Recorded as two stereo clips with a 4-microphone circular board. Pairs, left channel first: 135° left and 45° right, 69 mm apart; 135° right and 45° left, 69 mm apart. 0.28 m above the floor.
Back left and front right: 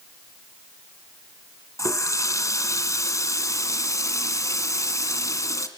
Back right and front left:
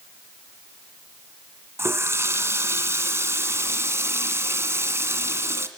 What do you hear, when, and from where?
1.8 s a running tap: 95° left, 2 m